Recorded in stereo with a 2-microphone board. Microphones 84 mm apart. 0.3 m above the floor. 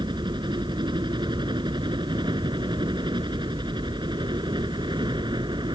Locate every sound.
0.0 s a helicopter: 65° right (ahead or behind)